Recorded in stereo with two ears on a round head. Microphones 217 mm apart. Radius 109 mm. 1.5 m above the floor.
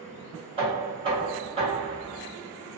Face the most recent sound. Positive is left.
turn(degrees=-25)  # may be behind; listen again after turning